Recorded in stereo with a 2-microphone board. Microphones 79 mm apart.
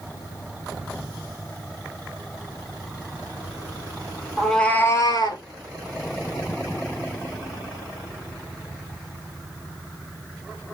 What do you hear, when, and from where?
4.4 s a cat meowing: centre (ahead or behind), 0.9 m; by 5.4 s 70° left (ahead or behind), 0.9 m